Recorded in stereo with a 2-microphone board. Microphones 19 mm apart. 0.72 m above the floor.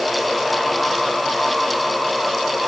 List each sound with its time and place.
Only background noise.